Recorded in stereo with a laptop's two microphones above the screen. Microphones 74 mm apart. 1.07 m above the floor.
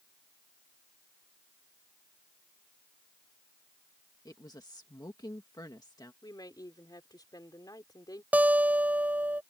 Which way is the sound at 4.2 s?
65° left (ahead or behind).